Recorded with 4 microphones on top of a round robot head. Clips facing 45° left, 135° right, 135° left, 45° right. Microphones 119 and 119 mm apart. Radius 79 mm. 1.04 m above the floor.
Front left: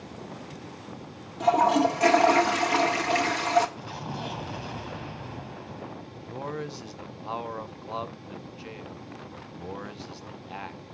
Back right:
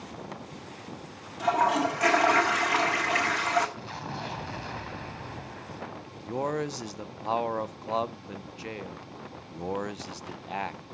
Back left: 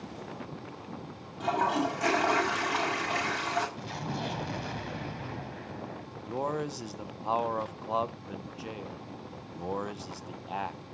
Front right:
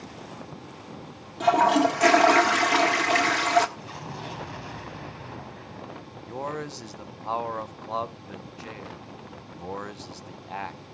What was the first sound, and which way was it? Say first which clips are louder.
A toilet flushing: front left 4 dB, front right 8 dB; 20° right.